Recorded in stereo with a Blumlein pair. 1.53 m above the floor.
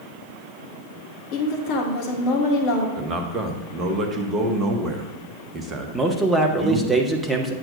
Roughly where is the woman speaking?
Ahead left.